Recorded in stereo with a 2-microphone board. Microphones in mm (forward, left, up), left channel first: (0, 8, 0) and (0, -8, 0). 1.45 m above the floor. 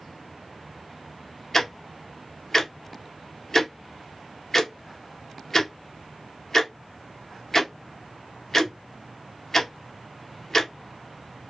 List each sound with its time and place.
1.5 s ticking: 25° left (ahead or behind), 0.8 m